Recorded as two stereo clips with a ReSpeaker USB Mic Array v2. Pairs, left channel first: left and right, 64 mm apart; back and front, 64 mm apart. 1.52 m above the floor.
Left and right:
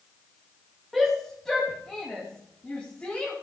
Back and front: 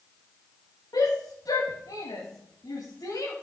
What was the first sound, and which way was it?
A shout, 175° left.